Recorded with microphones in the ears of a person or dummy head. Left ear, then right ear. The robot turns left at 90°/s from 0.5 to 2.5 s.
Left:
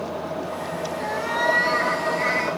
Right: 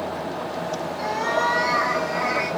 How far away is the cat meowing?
About 6 m.